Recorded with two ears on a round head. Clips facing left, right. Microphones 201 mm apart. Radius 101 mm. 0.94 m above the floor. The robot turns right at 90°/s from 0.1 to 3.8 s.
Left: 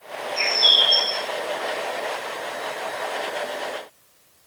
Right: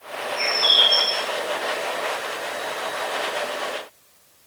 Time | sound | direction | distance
0.4 | a bird | 120° left | 1.6 m